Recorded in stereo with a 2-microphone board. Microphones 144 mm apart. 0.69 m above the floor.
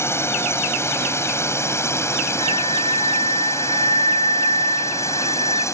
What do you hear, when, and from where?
0.0 s a drone: 15° left (ahead or behind); by 5.8 s 20° left (ahead or behind)
2.4 s a flute: 50° right (ahead or behind)